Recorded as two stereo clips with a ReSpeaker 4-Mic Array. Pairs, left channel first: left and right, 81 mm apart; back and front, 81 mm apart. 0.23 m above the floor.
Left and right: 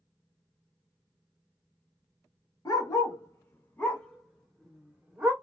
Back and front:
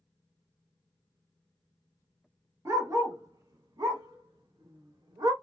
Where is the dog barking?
50° left, 1.3 m; by 5.3 s 25° right, 1.1 m.